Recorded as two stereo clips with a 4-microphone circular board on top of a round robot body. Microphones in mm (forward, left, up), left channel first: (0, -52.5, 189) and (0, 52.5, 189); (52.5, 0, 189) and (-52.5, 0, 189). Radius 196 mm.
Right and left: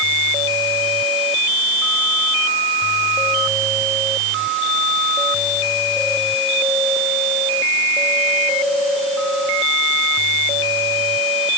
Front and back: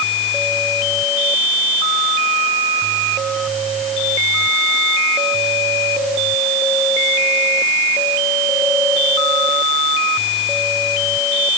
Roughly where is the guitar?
No guitar in this recording.